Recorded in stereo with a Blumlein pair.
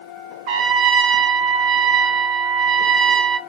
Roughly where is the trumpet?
Ahead right.